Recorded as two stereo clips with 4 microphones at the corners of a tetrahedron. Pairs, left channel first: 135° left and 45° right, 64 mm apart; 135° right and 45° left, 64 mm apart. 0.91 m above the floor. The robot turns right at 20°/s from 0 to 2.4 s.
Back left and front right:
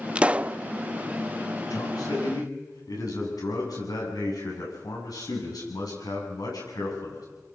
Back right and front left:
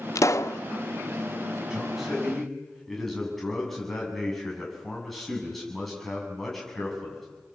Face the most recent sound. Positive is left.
turn(degrees=140)